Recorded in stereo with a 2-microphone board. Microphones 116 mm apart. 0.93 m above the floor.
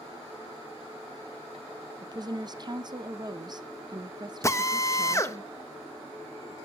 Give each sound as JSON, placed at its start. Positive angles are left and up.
{"t": 2.0, "sound": "a woman speaking", "side_deg": -35, "distance_m": 0.7}
{"t": 4.4, "sound": "a drill", "side_deg": 25, "distance_m": 0.9}